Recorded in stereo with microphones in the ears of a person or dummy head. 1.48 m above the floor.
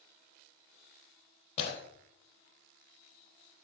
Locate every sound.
1.6 s breaking glass: 35° left (ahead or behind), 3 m